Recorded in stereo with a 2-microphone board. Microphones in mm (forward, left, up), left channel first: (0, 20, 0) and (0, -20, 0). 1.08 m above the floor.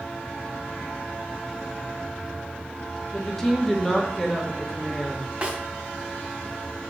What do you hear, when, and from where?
3.1 s a woman speaking: 10° left (ahead or behind), 1.7 m
5.4 s a snare drum: 25° right (ahead or behind), 1.9 m